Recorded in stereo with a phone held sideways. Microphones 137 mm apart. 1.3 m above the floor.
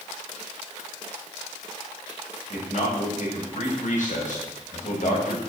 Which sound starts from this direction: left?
A man speaking, at 2.5 s.